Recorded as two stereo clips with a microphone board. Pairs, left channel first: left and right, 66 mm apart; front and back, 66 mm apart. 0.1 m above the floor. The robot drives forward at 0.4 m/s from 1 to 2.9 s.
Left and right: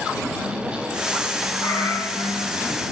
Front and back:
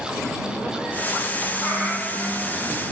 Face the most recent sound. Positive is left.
turn(degrees=115)